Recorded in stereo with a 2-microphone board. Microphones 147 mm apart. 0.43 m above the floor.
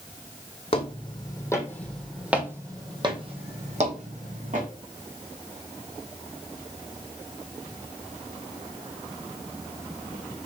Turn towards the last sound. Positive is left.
turn(degrees=-60)  # may be behind; listen again after turning